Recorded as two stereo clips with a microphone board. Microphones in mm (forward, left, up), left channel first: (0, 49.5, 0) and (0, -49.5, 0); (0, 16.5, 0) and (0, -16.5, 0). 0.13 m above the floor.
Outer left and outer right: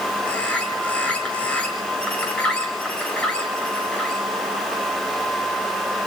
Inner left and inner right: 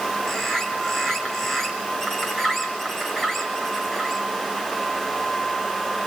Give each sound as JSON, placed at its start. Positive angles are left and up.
{"t": 0.2, "sound": "a bird", "side_deg": 15, "distance_m": 3.0}